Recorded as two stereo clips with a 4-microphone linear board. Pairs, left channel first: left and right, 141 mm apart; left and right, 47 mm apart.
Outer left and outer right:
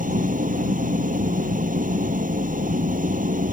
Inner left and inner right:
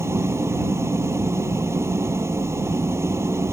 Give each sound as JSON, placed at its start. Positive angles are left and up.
{"t": 0.0, "sound": "an engine running", "side_deg": -70}